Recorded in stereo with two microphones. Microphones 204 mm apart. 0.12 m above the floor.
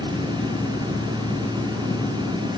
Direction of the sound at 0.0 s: 65° left (ahead or behind).